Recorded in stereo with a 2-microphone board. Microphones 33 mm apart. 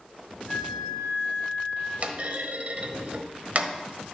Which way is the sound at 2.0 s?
45° right (ahead or behind).